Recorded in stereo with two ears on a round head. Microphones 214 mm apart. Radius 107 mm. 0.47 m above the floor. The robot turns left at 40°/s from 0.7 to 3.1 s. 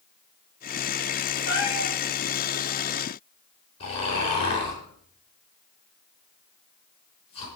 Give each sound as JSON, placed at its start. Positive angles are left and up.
{"t": 1.5, "sound": "a cat meowing", "side_deg": 75, "distance_m": 7.0}
{"t": 3.8, "sound": "snoring", "side_deg": 25, "distance_m": 5.0}